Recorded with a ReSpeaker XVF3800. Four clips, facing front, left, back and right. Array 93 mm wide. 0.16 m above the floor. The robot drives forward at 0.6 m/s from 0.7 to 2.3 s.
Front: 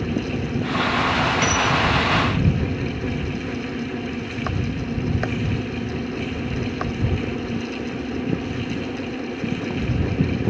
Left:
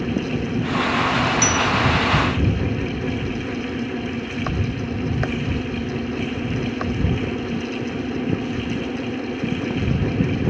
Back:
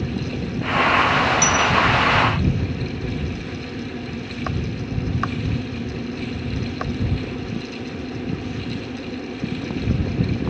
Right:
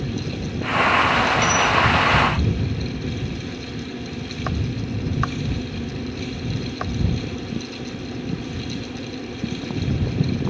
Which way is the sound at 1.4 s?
45° right.